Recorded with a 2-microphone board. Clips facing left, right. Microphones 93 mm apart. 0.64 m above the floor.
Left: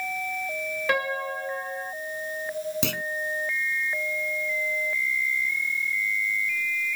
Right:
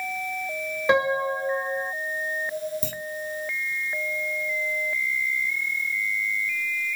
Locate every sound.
0.9 s a piano: 20° right (ahead or behind)
2.8 s a clunk: 80° left